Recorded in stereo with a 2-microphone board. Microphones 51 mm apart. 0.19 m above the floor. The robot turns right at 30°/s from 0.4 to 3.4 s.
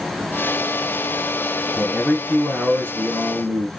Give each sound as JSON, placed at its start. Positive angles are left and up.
{"t": 1.8, "sound": "a man speaking", "azimuth_deg": -165, "distance_m": 2.5}